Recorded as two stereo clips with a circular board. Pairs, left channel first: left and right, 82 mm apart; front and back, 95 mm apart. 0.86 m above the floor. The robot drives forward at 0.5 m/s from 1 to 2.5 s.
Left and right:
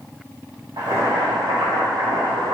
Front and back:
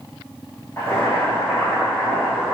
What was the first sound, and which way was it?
Boiling, 60° right.